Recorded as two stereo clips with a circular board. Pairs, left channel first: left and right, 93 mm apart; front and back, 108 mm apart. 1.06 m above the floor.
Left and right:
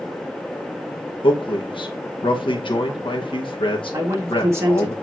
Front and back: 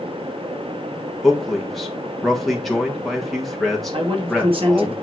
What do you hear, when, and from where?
1.2 s a man speaking: 90° left, 1.5 m
3.9 s a man speaking: 150° right, 2.5 m